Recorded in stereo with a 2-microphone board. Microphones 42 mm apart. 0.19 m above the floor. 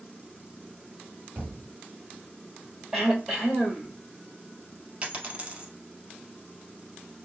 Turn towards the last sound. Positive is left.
turn(degrees=-30)  # may be behind; listen again after turning